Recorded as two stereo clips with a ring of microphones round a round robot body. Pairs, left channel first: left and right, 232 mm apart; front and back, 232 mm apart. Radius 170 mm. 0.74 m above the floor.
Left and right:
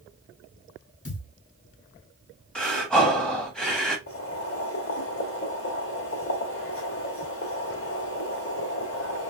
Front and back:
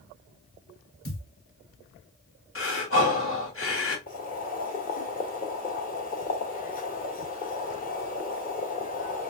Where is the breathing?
5° left, 1.7 m.